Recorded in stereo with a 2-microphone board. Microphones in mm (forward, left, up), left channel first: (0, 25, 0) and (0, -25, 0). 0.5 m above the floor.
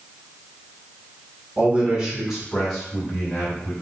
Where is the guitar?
No guitar in this recording.